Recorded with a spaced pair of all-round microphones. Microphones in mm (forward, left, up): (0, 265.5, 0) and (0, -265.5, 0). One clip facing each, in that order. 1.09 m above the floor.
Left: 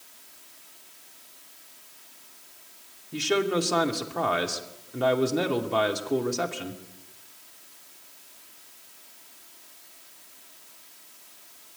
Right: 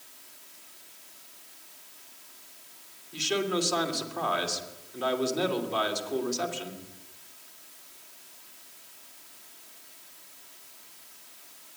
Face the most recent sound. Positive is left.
turn(degrees=70)  # may be behind; listen again after turning